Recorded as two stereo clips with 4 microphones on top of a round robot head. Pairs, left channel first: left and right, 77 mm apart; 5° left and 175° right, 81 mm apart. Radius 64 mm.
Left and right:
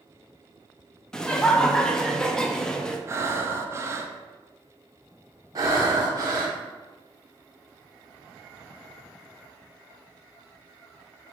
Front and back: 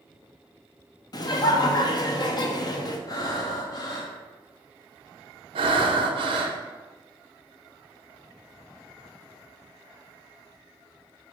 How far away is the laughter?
About 0.6 m.